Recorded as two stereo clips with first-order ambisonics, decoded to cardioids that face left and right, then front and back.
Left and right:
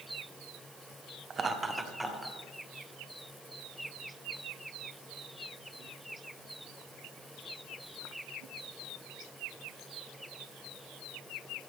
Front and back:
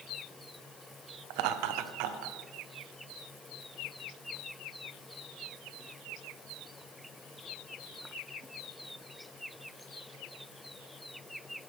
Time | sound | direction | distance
1.3 | laughter | 160° right | 0.9 m